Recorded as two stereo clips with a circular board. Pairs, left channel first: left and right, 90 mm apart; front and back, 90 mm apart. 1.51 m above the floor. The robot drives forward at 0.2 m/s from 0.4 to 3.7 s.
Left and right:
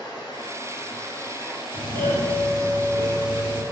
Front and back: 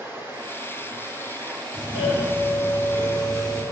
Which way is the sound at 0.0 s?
120° left.